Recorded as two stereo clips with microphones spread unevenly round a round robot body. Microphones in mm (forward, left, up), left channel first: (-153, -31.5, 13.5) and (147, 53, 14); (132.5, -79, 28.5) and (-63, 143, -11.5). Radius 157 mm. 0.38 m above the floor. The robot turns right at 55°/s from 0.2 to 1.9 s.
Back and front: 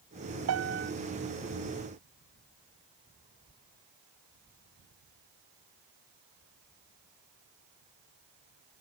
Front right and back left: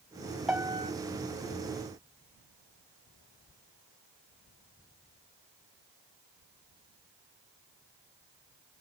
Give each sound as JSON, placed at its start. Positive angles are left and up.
{"t": 0.5, "sound": "a piano", "azimuth_deg": 45}